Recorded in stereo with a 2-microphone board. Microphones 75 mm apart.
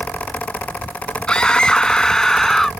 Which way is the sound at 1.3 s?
15° left (ahead or behind).